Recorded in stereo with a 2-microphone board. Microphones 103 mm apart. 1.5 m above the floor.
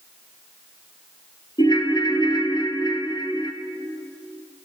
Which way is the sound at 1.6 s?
45° left (ahead or behind).